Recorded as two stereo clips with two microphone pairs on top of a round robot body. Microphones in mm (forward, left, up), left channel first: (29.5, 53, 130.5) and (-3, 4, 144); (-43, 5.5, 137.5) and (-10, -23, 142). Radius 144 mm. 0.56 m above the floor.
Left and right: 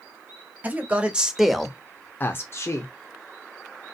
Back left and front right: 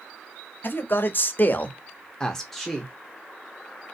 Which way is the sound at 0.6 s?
170° left.